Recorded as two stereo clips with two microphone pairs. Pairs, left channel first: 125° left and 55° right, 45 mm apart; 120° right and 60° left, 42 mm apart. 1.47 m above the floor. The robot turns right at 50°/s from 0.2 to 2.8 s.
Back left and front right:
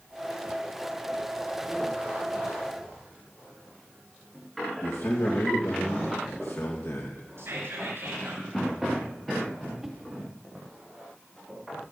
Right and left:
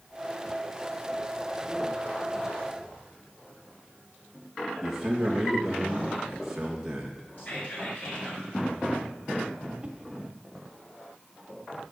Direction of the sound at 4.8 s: 140° left.